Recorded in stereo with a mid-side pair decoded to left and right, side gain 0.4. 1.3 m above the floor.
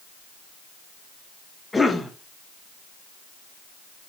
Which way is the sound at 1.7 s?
20° left.